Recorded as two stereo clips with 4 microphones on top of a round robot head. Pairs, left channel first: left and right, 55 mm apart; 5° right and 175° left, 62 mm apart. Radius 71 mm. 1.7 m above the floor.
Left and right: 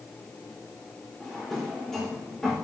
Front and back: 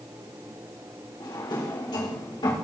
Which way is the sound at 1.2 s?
5° left.